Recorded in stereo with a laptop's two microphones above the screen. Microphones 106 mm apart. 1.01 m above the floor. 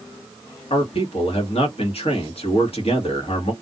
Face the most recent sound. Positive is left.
turn(degrees=65)  # may be behind; listen again after turning